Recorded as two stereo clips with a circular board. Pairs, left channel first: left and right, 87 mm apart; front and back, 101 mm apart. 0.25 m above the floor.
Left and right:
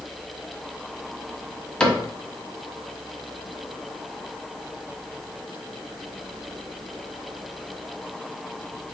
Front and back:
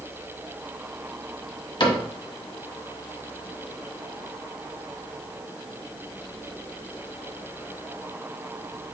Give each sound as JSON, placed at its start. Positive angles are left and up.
{"t": 1.8, "sound": "a cupboard door", "azimuth_deg": 15, "distance_m": 1.2}